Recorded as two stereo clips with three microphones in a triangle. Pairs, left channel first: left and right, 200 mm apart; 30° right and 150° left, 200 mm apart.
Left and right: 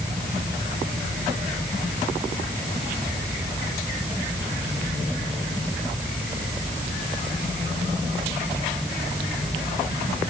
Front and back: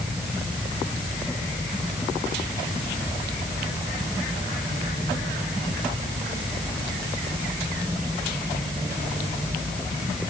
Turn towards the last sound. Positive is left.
No sound to turn to.